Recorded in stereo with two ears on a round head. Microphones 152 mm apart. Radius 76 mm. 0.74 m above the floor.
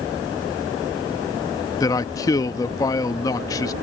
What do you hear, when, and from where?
1.8 s a man speaking: 20° left (ahead or behind)